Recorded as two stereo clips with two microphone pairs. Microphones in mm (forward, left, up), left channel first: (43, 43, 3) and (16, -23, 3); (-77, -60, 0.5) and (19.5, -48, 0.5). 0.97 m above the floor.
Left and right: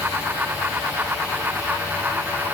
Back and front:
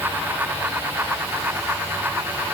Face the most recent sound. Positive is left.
No sound to turn to.